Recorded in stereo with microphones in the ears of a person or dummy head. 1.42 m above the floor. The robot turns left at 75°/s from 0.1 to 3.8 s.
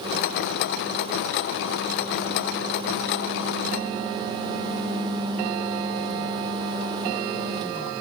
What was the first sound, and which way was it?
Only background noise.